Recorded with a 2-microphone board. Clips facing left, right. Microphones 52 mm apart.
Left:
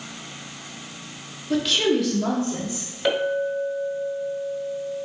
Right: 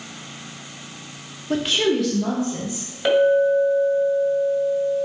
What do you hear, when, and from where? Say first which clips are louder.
1.5 s a woman speaking: right 1 dB; 40° right (ahead or behind), 0.7 m; by 2.9 s 35° left (ahead or behind), 1.2 m
3.0 s a clink: right 7 dB; 5° right (ahead or behind), 1.6 m